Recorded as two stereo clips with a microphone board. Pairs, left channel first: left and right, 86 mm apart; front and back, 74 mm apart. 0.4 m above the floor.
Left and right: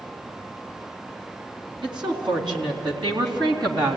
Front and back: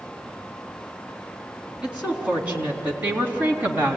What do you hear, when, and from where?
1.8 s a woman speaking: 105° right, 4.5 m; by 4.0 s 115° right, 3.5 m